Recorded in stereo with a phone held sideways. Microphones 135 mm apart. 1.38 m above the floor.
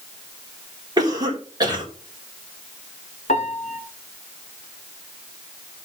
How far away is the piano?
About 2 m.